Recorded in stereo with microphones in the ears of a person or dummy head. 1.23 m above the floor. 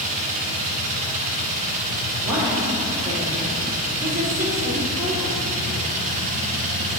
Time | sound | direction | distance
0.0 | a machine running | 35° right (ahead or behind) | 0.8 m
2.2 | a woman speaking | 20° right (ahead or behind) | 2 m